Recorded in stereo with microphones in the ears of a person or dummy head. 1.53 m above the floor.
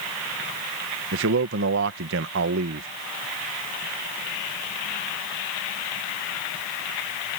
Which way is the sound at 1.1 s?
65° right (ahead or behind).